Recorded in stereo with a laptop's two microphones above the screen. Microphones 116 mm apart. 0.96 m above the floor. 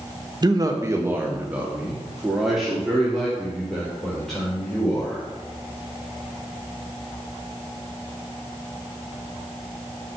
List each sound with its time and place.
0.4 s a man speaking: 40° right (ahead or behind), 1.1 m; by 5.2 s 5° left (ahead or behind), 5 m